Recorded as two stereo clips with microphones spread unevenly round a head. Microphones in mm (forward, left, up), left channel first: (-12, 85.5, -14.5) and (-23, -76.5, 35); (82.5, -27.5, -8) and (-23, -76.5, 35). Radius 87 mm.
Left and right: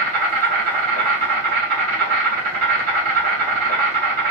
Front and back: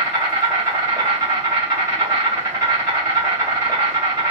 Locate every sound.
0.0 s an insect: 110° right, 2.0 m